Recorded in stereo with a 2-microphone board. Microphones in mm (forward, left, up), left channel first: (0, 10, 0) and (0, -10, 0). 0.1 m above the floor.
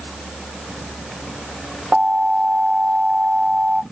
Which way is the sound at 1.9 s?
65° right (ahead or behind).